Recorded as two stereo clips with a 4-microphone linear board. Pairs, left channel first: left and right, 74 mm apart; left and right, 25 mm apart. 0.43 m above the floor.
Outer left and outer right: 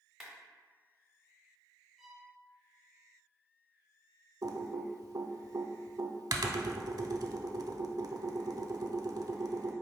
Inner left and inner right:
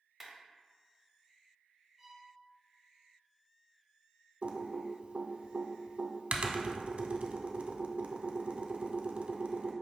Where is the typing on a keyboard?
65° right (ahead or behind), 0.5 m.